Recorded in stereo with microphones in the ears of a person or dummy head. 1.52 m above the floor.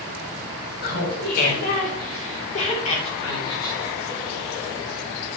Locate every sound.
0.8 s laughter: 60° left (ahead or behind), 4.5 m; by 4.2 s 15° left (ahead or behind), 3 m